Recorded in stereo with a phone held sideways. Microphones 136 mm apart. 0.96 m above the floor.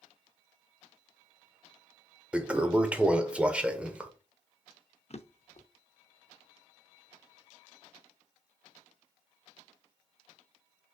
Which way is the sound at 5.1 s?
50° left (ahead or behind).